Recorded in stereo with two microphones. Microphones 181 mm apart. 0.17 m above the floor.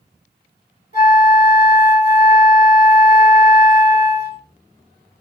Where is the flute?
55° left (ahead or behind), 1.3 m.